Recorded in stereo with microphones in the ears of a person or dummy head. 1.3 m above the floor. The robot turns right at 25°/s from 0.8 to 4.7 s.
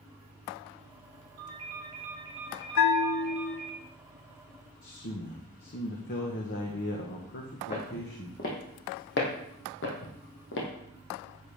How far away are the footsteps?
About 3 m.